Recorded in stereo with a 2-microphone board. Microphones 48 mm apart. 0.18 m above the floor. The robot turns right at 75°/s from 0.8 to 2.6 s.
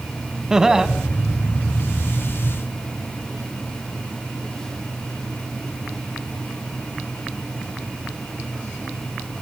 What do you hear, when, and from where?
0.5 s laughter: 10° right (ahead or behind), 1.2 m